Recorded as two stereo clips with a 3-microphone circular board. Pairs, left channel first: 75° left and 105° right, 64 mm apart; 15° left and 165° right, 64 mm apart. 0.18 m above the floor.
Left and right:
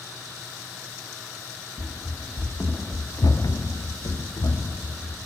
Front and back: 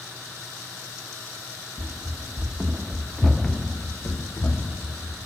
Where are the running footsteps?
165° left, 1.6 m; by 5.2 s 60° left, 2.5 m.